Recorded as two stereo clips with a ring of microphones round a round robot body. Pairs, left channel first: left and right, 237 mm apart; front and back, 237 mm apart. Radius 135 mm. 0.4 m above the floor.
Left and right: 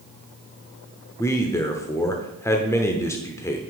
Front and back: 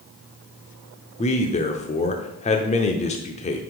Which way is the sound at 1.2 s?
25° left.